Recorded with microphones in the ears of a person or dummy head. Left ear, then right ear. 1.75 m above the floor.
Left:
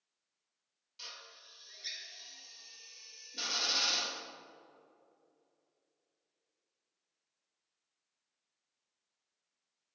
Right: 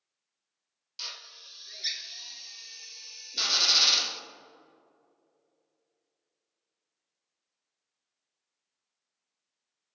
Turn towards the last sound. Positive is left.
turn(degrees=-30)  # may be behind; listen again after turning